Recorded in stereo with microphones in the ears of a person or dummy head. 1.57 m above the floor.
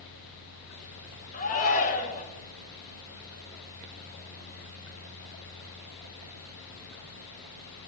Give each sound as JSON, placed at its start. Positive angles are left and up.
{"t": 1.3, "sound": "a shout", "side_deg": 40, "distance_m": 1.5}